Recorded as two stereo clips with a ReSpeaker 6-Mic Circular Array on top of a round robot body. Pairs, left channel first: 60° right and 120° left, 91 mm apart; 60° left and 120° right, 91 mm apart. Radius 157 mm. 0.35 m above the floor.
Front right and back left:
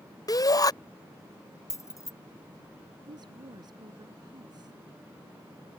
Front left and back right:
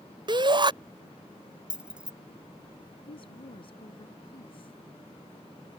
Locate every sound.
0.3 s a shout: 100° right
1.7 s keys jangling: 50° right
3.0 s a woman speaking: 80° left